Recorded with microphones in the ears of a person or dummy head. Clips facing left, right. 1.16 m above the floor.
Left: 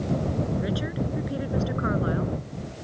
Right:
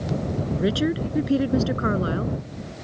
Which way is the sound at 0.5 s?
50° right (ahead or behind).